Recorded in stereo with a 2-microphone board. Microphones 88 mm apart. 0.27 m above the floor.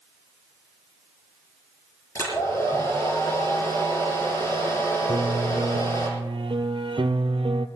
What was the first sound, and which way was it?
A hair dryer, 40° left (ahead or behind).